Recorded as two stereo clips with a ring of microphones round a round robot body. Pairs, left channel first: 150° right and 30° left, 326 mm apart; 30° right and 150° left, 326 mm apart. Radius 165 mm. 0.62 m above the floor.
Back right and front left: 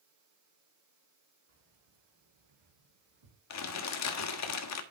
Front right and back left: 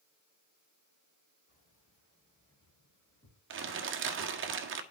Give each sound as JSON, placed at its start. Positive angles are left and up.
{"t": 1.5, "sound": "keys jangling", "azimuth_deg": 40, "distance_m": 6.5}
{"t": 3.5, "sound": "crumpling", "azimuth_deg": -165, "distance_m": 1.6}